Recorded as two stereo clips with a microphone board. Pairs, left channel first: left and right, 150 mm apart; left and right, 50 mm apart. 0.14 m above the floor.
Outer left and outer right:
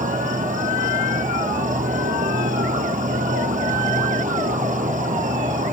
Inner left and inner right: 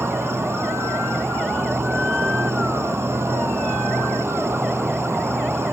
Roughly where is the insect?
Right.